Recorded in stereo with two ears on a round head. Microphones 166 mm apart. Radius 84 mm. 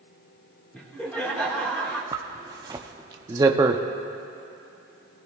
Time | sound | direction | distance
0.7 | laughter | 5° left (ahead or behind) | 3 m
2.1 | a zipper | 20° right (ahead or behind) | 0.6 m